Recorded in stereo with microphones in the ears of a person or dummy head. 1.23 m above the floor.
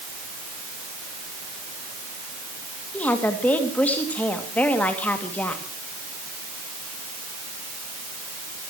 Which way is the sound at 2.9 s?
10° left (ahead or behind).